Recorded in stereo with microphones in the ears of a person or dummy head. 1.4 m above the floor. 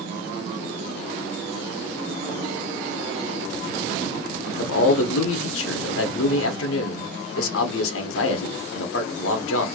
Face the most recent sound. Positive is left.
turn(degrees=80)